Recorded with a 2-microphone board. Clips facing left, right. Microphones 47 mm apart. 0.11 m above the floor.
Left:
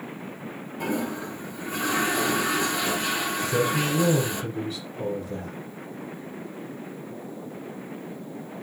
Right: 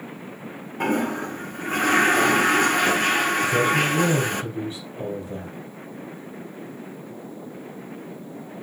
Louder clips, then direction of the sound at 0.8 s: Right 5 dB; 55° right (ahead or behind).